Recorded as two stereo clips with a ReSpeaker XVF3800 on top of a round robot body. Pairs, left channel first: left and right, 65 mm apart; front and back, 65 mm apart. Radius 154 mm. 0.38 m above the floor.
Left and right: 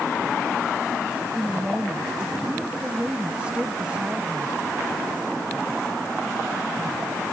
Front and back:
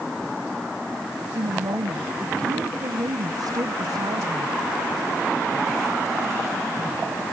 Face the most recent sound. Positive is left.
turn(degrees=-165)